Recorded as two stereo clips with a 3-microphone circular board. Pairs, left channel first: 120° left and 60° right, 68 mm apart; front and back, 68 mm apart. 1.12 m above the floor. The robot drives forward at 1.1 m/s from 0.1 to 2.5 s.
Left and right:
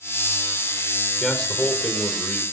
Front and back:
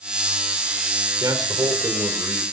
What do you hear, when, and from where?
1.2 s a man speaking: 155° right, 3 m; by 2.4 s 165° right, 4.5 m